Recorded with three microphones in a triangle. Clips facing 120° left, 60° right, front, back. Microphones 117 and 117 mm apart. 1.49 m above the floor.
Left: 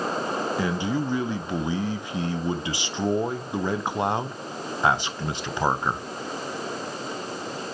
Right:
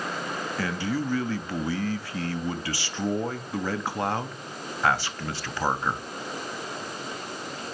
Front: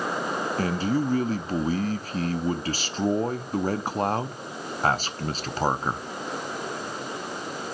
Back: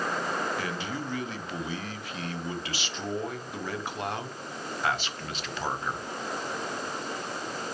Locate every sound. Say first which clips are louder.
0.6 s a man speaking: right 1 dB, front 9 dB; 50° left, 0.6 m